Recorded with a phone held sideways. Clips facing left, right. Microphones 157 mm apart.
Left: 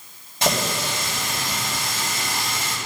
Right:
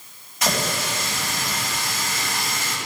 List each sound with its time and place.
0.4 s a running tap: 30° left (ahead or behind), 5 m